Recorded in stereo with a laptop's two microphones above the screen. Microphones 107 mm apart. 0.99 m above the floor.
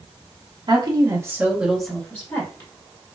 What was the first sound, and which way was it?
A woman speaking, 45° right (ahead or behind).